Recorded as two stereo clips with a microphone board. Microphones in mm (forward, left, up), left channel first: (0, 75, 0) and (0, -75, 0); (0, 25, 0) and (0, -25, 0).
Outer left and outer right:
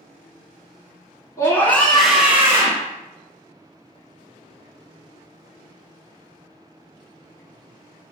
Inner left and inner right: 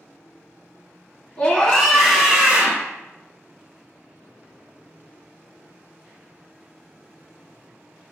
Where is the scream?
20° left (ahead or behind), 1.7 m; by 2.9 s 30° right (ahead or behind), 1.5 m.